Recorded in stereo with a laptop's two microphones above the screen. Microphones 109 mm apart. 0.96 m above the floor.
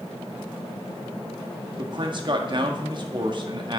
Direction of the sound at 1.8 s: 45° right (ahead or behind).